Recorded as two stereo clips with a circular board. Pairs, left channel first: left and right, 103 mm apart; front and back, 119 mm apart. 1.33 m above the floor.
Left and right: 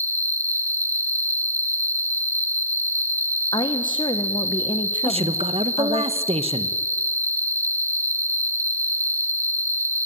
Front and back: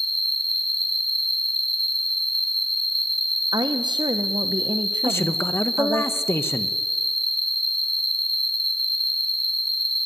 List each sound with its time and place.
0.0 s an insect: 35° right, 1.1 m
3.5 s a woman speaking: 130° left, 1.0 m
5.0 s a man speaking: 70° right, 1.0 m